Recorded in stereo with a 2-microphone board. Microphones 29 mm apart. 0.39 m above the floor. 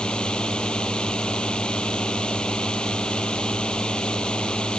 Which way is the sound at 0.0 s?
35° left (ahead or behind).